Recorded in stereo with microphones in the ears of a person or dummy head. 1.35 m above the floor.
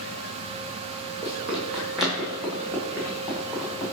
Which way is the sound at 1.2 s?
5° right (ahead or behind).